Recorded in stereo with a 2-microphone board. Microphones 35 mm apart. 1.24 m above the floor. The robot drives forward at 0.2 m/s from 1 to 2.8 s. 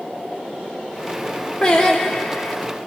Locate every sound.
1.6 s singing: 20° left (ahead or behind), 0.8 m